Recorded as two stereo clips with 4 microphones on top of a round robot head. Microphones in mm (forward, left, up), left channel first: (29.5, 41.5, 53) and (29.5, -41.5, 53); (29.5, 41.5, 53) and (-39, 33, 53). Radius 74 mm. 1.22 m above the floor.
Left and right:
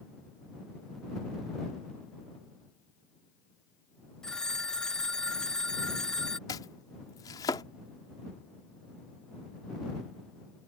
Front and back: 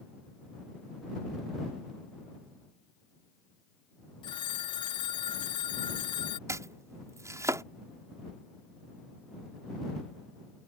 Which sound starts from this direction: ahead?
A phone ringing, at 4.2 s.